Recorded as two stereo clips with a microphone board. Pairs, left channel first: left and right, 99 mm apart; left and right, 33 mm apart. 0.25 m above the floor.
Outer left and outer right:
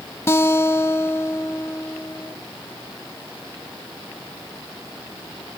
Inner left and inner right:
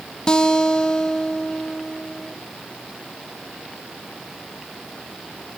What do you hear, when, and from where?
0.3 s a guitar: 25° left (ahead or behind), 0.9 m